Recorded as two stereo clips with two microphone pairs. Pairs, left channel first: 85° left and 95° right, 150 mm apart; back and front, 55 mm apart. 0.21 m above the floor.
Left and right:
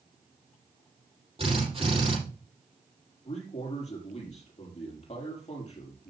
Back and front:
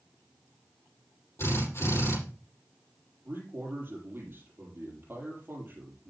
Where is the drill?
140° right, 7 m.